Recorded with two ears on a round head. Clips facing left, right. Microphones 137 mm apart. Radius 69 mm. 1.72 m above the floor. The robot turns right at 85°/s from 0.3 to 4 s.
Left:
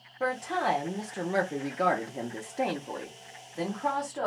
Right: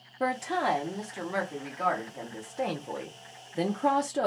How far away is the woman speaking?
About 0.6 m.